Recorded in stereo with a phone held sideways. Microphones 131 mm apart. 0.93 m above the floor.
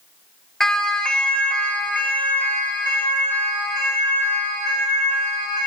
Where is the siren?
5° left (ahead or behind), 3 m; by 5.7 s 20° left (ahead or behind), 9.5 m.